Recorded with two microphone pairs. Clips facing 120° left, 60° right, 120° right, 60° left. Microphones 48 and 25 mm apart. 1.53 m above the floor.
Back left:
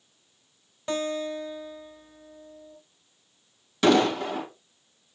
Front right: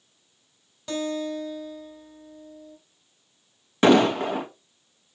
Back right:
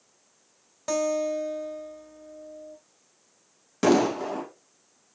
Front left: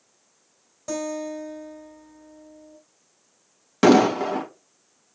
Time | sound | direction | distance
0.9 | a guitar | 175° right | 2.5 m
3.8 | an explosion | straight ahead | 2.0 m